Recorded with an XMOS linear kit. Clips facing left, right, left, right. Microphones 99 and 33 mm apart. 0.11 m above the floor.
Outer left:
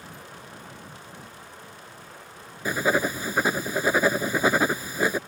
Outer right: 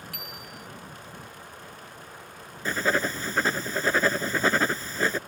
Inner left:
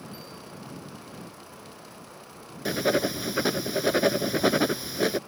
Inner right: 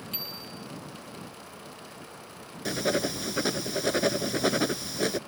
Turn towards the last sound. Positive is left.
turn(degrees=10)  # may be behind; listen again after turning